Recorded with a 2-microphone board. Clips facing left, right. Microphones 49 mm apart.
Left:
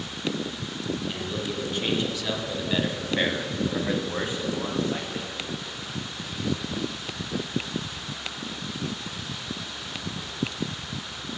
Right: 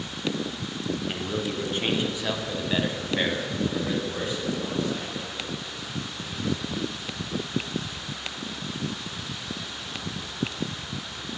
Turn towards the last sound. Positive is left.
turn(degrees=55)  # may be behind; listen again after turning